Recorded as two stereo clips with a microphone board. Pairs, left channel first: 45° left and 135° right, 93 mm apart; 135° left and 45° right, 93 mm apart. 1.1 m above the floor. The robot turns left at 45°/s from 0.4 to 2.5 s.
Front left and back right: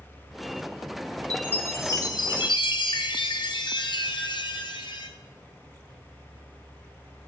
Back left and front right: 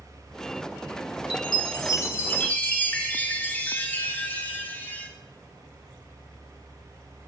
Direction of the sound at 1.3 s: 120° left.